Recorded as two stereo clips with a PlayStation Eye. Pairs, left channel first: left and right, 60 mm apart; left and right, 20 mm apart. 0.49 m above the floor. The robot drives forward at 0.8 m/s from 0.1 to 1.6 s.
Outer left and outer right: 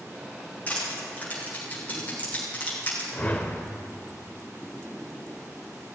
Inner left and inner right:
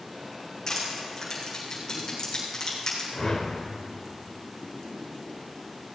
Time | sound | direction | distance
0.7 | crushing | 25° left (ahead or behind) | 5.5 m
3.1 | a whoosh | 25° left (ahead or behind) | 1.0 m